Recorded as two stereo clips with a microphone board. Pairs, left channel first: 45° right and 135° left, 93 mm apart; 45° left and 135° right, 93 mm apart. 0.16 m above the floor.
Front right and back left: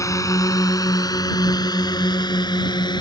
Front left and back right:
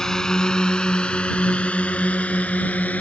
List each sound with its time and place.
0.0 s a drone: 35° right; by 3.0 s 25° right